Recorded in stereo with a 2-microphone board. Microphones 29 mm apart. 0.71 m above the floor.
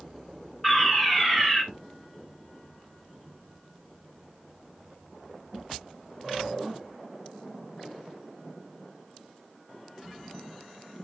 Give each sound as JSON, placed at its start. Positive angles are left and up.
{"t": 0.6, "sound": "a fire alarm", "side_deg": 20, "distance_m": 3.5}